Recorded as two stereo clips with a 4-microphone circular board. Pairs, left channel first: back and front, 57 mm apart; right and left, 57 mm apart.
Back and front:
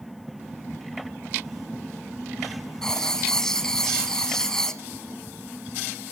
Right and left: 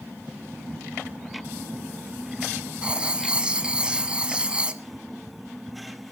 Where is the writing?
120° left, 1.5 m.